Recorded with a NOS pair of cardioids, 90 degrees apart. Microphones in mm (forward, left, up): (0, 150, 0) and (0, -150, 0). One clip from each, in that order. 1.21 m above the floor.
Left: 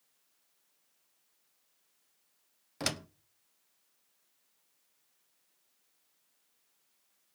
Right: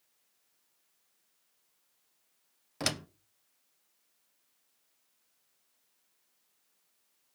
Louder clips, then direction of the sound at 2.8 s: Right 2 dB; 10° right.